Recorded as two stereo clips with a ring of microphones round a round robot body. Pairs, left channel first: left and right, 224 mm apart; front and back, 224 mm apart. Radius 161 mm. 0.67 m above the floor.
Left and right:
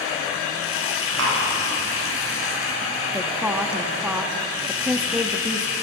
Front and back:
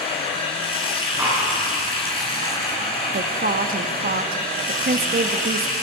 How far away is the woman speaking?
About 1.0 m.